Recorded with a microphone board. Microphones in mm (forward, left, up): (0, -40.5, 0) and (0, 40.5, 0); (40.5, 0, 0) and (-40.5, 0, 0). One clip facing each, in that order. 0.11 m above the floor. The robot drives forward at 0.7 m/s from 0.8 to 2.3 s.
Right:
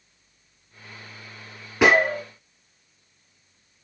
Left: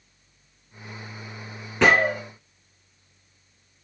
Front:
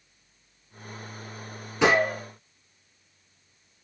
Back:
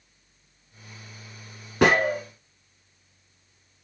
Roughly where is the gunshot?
Behind.